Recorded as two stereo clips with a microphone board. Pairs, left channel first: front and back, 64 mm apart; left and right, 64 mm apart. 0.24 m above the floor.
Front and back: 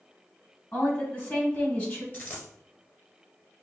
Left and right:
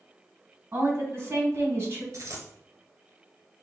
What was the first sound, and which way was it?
A woman speaking, 50° right.